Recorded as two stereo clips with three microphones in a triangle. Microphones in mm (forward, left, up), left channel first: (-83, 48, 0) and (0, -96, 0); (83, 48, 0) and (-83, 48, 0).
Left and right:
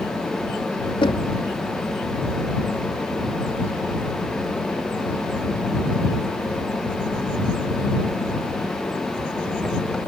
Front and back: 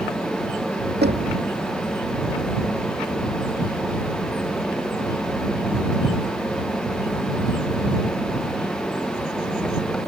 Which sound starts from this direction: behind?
Knocking, at 1.0 s.